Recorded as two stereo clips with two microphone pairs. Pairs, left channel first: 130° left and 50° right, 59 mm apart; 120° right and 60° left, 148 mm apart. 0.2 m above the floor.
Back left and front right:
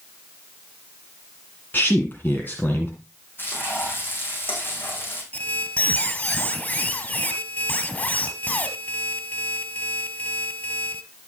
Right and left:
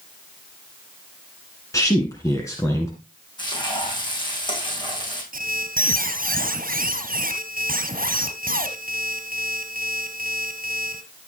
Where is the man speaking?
175° left, 2 m.